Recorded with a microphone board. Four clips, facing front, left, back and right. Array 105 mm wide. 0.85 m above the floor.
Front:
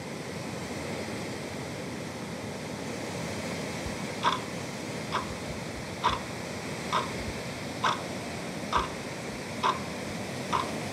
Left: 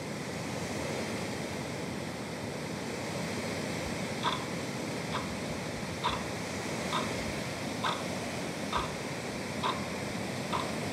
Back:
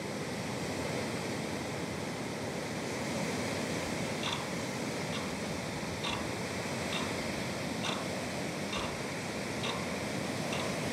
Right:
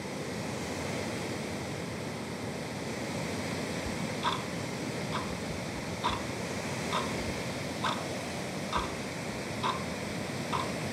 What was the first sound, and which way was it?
Ticking, straight ahead.